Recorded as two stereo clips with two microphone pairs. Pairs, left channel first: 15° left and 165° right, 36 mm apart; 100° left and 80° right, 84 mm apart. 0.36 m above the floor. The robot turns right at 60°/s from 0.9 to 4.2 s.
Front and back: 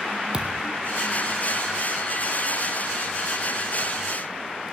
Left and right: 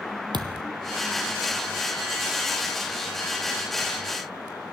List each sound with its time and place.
0.3 s a thud: 105° right, 1.4 m